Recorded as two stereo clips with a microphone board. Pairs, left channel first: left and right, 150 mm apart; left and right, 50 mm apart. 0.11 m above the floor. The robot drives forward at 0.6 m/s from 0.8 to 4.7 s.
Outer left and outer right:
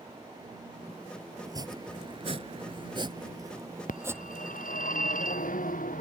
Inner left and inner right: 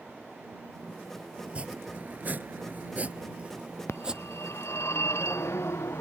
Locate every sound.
1.4 s chopping: 25° right (ahead or behind); by 4.9 s 15° right (ahead or behind)
3.9 s a phone ringing: 65° left (ahead or behind); by 6.0 s 70° left (ahead or behind)